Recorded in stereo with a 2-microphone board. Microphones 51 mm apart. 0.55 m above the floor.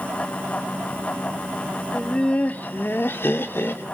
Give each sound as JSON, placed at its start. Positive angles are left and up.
{"t": 1.9, "sound": "laughter", "side_deg": 10, "distance_m": 1.6}